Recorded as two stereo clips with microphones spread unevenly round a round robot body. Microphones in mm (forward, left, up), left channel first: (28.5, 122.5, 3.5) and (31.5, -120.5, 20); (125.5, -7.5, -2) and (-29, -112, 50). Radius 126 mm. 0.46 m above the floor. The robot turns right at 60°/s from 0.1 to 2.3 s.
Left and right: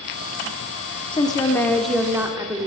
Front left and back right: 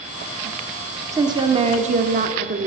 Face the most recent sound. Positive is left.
turn(degrees=-165)